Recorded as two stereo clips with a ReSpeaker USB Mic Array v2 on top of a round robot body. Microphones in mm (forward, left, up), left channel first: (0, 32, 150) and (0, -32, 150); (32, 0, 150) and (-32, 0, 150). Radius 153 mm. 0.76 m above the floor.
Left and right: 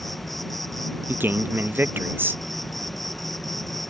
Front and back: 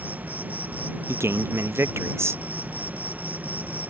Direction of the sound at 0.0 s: 175° left.